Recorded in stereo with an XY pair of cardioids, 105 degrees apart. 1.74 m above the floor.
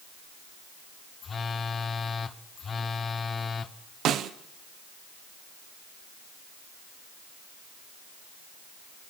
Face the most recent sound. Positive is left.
turn(degrees=-70)